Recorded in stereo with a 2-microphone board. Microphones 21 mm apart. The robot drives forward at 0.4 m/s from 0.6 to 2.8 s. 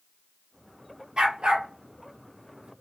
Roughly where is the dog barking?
Right.